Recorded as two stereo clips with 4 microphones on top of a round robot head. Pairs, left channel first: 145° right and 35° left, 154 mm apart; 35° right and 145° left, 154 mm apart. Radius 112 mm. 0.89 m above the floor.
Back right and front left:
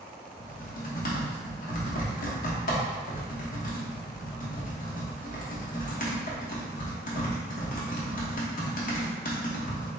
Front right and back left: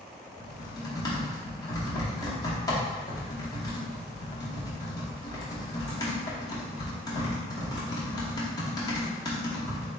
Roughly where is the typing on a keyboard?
Right.